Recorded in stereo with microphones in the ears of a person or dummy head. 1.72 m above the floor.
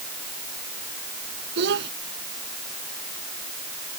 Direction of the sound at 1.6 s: 70° right (ahead or behind).